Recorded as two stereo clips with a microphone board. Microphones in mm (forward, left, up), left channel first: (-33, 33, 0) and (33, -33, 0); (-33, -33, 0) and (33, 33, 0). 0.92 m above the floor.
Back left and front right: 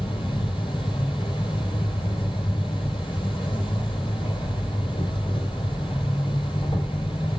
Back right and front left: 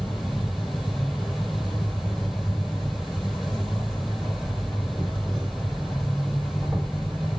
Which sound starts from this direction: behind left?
An insect, at 0.0 s.